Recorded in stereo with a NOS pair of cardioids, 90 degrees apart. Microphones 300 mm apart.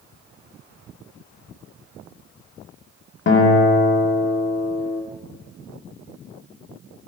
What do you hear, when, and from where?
3.3 s a guitar: 40° left, 2 m